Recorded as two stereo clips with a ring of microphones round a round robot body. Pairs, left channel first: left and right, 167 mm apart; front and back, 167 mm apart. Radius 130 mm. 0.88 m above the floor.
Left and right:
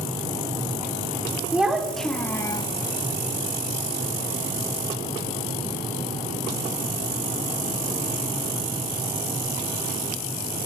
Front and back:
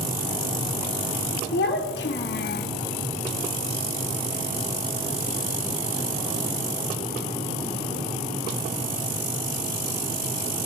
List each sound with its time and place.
1.5 s a child speaking: 5° right, 2 m; by 2.7 s 25° left, 1.1 m